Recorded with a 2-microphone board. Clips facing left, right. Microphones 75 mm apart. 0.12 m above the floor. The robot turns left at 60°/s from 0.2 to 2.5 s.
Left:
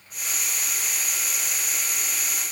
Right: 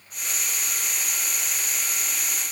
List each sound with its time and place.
Only background noise.